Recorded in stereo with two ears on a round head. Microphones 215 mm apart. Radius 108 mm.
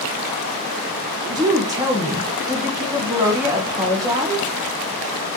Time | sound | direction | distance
1.3 | a woman speaking | 15° right (ahead or behind) | 1.0 m